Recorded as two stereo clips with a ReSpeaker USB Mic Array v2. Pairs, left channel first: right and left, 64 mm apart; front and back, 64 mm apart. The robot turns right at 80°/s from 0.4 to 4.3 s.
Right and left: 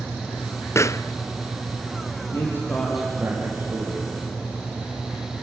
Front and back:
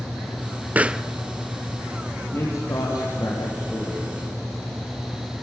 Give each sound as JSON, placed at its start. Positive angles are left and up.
{"t": 0.8, "sound": "a pop", "azimuth_deg": -120, "distance_m": 0.6}
{"t": 2.3, "sound": "a man speaking", "azimuth_deg": -55, "distance_m": 5.5}